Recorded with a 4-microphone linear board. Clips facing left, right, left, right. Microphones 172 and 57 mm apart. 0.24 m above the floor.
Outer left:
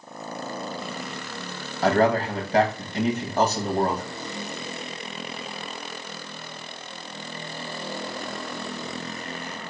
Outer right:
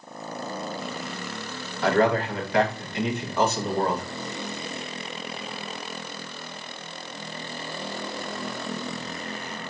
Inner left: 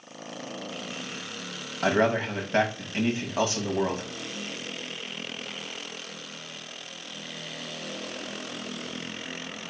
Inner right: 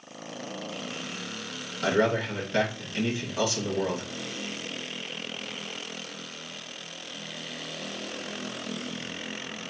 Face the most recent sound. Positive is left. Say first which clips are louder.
# outer left 1 dB, inner left 1 dB
turn(degrees=35)  # may be behind; listen again after turning